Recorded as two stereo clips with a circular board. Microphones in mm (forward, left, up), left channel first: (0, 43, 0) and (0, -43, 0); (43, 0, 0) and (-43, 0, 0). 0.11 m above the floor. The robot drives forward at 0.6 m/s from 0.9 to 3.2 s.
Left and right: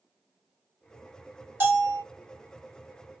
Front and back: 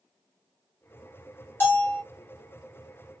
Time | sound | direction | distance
1.6 | a bell | 45° right | 1.2 m